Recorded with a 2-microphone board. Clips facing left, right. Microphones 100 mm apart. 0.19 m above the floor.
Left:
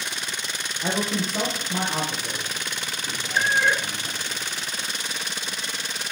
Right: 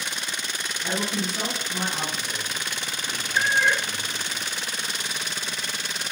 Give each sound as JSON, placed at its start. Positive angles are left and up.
{"t": 0.8, "sound": "a man speaking", "side_deg": 50, "distance_m": 7.5}
{"t": 3.4, "sound": "a cat meowing", "side_deg": 10, "distance_m": 1.2}